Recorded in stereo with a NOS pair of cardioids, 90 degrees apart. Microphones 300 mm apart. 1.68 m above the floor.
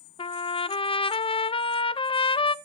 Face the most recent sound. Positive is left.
turn(degrees=20)